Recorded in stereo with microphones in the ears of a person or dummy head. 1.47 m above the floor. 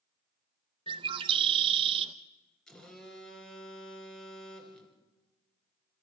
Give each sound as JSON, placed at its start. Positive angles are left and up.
{"t": 0.9, "sound": "a bird", "side_deg": -35, "distance_m": 0.8}
{"t": 2.7, "sound": "a phone buzzing", "side_deg": 5, "distance_m": 3.0}